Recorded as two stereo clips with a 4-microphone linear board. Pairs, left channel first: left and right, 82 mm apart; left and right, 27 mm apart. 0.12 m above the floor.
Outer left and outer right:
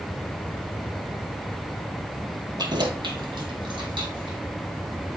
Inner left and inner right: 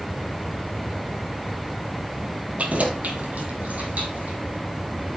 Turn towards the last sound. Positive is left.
turn(degrees=-80)